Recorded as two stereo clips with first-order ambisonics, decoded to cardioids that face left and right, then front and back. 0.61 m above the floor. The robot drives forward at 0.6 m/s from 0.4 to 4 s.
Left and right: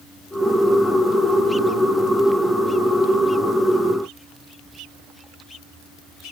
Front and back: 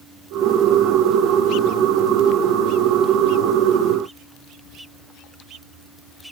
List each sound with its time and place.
Only background noise.